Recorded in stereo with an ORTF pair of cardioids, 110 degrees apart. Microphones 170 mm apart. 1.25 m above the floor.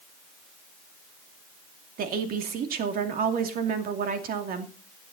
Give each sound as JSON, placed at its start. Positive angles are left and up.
{"t": 2.0, "sound": "a woman speaking", "azimuth_deg": -60, "distance_m": 2.5}